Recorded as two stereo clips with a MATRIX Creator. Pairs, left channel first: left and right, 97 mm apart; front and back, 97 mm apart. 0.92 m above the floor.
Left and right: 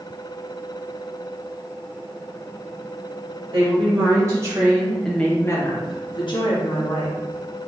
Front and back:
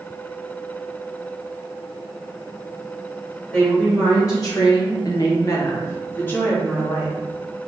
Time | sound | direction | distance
3.5 | a woman speaking | 60° right | 1.6 m